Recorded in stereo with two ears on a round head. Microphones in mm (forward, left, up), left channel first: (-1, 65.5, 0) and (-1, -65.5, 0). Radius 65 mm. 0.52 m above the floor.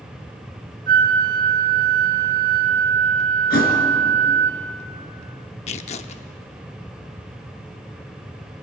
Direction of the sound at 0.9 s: 65° right (ahead or behind).